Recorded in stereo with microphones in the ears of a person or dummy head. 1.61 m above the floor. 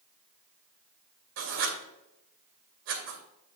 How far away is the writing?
About 2.5 m.